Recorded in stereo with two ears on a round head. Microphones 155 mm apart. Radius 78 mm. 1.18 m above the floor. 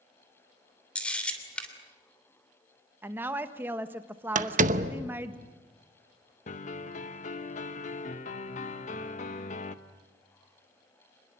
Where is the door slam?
50° right (ahead or behind), 1.0 m.